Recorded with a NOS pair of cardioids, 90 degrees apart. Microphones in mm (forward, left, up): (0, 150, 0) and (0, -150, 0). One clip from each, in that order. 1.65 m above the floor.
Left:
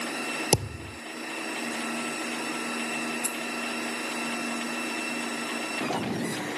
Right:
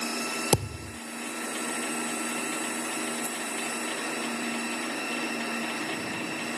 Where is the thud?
Straight ahead.